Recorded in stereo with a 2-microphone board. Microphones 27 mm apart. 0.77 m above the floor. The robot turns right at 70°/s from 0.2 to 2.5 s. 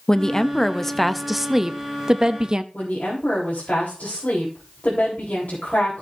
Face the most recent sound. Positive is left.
turn(degrees=70)  # may be behind; listen again after turning